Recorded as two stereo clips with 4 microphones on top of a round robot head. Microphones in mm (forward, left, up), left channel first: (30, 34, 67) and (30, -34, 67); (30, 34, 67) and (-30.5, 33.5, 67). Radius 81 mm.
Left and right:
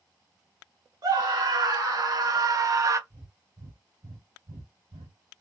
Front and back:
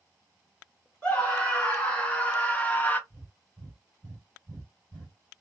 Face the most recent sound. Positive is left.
turn(degrees=-90)